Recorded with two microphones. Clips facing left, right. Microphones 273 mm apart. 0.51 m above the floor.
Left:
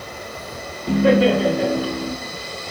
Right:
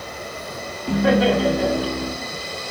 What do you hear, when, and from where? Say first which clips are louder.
0.9 s laughter: left 2 dB; 30° left (ahead or behind), 2 m